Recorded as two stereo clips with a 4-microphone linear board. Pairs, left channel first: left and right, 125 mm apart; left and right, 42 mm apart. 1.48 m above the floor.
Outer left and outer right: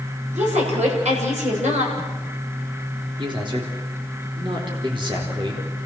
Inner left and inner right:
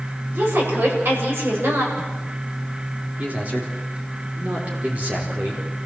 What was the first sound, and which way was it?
A woman speaking, 75° right (ahead or behind).